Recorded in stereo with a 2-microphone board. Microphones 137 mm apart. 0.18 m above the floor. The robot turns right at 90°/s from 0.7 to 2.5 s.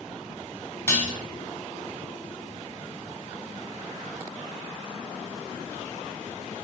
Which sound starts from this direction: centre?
Dishes clattering, at 0.9 s.